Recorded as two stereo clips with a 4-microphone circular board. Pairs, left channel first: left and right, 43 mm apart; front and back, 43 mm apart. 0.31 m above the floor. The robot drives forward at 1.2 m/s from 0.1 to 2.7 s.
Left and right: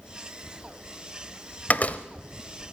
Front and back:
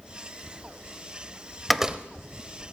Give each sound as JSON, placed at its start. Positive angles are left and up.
{"t": 1.7, "sound": "a door slam", "azimuth_deg": 80, "distance_m": 0.7}